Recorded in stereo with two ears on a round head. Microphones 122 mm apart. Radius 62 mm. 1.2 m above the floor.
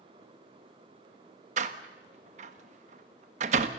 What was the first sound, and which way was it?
A door slam, 60° right (ahead or behind).